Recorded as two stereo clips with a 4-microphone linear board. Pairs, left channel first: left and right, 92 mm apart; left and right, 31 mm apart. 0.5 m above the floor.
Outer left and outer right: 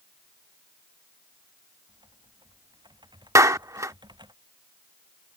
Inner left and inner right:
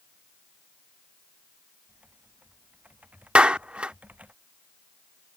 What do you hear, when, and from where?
1.9 s typing on a keyboard: 55° right (ahead or behind)
3.4 s a clap: 35° right (ahead or behind)